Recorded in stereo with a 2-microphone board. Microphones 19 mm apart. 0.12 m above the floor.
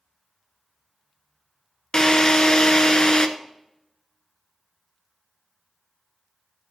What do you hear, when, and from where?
1.9 s a drill: 40° left (ahead or behind), 0.7 m